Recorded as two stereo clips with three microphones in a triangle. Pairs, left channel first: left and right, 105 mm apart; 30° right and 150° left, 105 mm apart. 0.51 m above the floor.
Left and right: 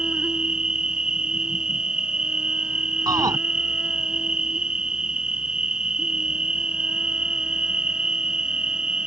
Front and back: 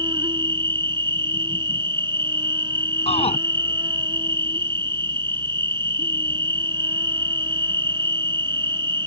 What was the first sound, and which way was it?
An insect, 170° right.